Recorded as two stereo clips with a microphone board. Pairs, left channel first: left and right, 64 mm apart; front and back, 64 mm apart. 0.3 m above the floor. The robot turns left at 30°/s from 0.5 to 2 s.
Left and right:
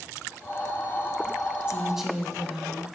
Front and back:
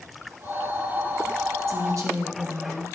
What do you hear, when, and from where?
1.7 s a woman speaking: 165° right, 2.5 m; by 2.9 s 175° right, 2.5 m